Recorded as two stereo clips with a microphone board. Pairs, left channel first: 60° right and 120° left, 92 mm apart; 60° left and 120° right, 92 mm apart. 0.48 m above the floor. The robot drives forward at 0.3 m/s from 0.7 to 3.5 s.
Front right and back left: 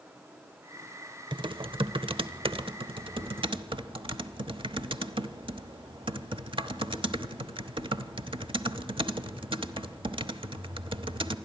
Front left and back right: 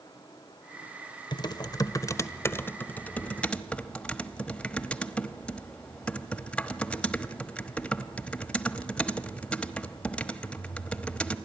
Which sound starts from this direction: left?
Typing on a keyboard, at 1.3 s.